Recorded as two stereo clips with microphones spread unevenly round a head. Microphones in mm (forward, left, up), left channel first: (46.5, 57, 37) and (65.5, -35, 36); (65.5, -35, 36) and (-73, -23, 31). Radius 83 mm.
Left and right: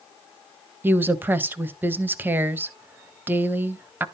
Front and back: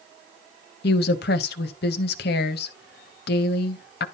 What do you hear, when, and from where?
0.8 s a woman speaking: 10° right, 1.4 m